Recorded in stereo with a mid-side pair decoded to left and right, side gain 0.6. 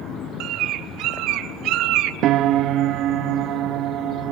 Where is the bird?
65° right, 1.2 m.